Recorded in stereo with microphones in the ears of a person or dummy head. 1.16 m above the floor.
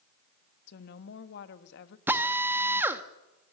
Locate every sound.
0.7 s a woman speaking: 70° left (ahead or behind), 1.3 m
2.1 s a drill: 15° right (ahead or behind), 0.7 m